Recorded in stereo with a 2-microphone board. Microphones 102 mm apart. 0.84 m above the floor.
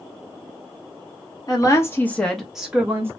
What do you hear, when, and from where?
1.5 s a woman speaking: 35° left (ahead or behind), 0.9 m; by 3.1 s 25° right (ahead or behind), 0.9 m